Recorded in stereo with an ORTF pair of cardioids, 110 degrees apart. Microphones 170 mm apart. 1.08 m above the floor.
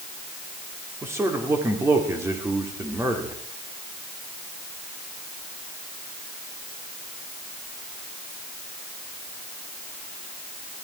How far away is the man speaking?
About 2.5 m.